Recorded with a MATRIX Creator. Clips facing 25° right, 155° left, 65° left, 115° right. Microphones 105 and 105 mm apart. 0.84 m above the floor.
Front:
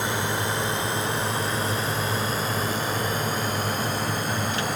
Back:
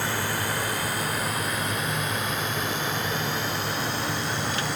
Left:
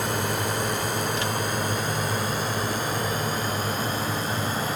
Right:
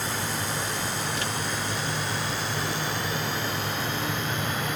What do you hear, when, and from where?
0.0 s a drone: 45° left; by 4.8 s 15° left